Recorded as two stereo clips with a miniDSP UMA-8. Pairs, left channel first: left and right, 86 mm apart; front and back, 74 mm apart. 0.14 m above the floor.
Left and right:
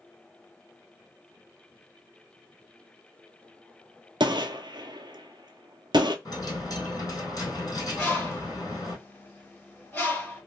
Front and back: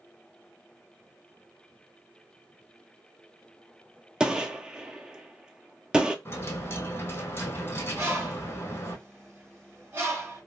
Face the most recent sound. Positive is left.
turn(degrees=145)